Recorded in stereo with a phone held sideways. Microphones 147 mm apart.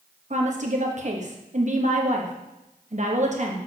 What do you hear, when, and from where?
0.3 s a woman speaking: 55° right (ahead or behind), 1.1 m